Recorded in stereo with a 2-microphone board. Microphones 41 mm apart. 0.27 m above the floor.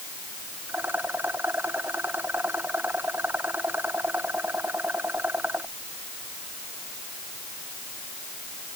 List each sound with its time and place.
0.7 s a rattle: 55° right (ahead or behind)